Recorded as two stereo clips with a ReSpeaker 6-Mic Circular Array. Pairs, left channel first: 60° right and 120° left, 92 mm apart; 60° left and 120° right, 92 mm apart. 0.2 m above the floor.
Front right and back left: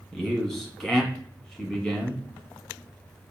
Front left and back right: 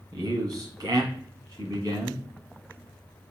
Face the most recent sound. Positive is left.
turn(degrees=-140)